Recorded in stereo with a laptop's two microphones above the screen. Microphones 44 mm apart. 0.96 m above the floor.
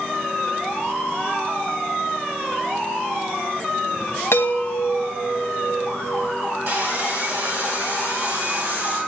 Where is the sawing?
55° right (ahead or behind), 5.5 m.